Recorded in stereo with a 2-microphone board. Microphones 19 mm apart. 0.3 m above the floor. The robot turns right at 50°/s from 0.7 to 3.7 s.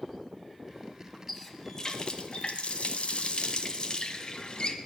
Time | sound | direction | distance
1.3 | a running tap | 15° left | 1.3 m